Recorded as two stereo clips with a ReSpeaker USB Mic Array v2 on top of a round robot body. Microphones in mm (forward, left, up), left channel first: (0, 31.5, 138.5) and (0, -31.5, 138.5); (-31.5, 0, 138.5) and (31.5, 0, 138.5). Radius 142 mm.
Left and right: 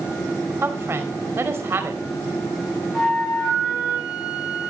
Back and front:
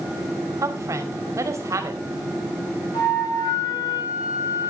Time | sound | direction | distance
0.6 | a woman speaking | 40° right | 2.5 m
2.9 | a flute | 175° left | 9.5 m